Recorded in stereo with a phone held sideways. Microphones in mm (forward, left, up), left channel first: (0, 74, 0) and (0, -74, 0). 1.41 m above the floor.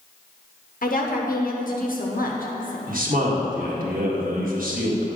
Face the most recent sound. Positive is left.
turn(degrees=-70)  # may be behind; listen again after turning